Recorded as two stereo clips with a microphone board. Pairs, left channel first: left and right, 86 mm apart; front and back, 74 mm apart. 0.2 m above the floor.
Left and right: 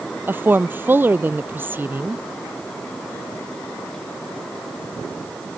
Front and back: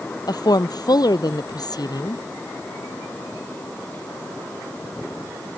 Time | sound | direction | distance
0.3 | a woman speaking | 25° right | ?